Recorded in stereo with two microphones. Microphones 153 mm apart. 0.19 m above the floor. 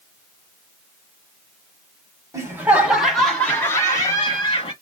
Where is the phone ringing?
I don't hear a phone ringing.